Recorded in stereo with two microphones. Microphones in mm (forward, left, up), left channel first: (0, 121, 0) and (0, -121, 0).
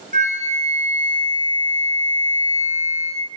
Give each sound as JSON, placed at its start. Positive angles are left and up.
{"t": 0.1, "sound": "a flute", "side_deg": -30, "distance_m": 1.7}